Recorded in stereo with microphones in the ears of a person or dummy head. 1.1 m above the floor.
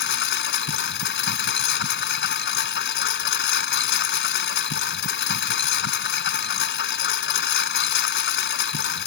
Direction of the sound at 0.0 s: 60° left (ahead or behind).